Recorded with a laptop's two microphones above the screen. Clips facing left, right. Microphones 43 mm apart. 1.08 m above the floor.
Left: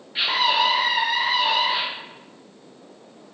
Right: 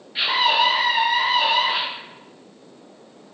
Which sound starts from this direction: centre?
A scream, at 0.1 s.